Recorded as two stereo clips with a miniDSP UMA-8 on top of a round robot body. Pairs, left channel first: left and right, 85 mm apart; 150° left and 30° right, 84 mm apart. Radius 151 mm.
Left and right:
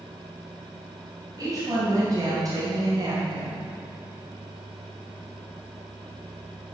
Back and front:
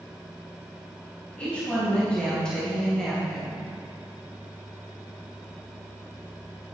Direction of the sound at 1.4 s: 135° right.